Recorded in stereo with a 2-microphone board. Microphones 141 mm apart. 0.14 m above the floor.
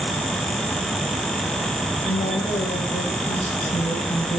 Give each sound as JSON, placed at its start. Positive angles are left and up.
{"t": 2.0, "sound": "a woman speaking", "side_deg": 60, "distance_m": 7.5}